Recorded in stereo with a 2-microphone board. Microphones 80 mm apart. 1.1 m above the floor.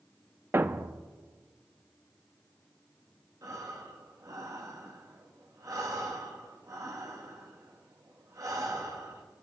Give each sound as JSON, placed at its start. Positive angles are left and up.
{"t": 0.5, "sound": "a thud", "side_deg": -30, "distance_m": 0.6}
{"t": 3.4, "sound": "breathing", "side_deg": -45, "distance_m": 1.7}